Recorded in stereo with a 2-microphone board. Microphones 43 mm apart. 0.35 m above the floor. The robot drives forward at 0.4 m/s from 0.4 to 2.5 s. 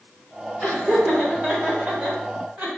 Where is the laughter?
20° right (ahead or behind), 1.1 m; by 2.7 s 25° right (ahead or behind), 0.9 m.